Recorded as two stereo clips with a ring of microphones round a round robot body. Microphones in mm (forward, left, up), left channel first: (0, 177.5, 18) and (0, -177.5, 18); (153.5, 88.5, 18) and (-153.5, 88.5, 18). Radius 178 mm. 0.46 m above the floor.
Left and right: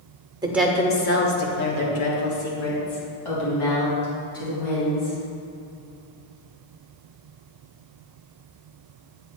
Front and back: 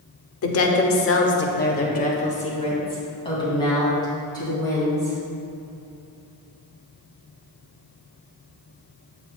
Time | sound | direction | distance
0.4 | a woman speaking | 15° right | 1.0 m